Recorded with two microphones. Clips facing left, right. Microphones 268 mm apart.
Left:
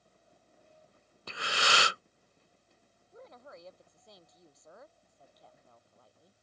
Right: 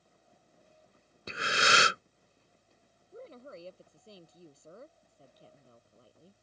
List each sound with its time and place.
1.3 s breathing: 20° right (ahead or behind)
3.1 s a woman speaking: 30° right (ahead or behind)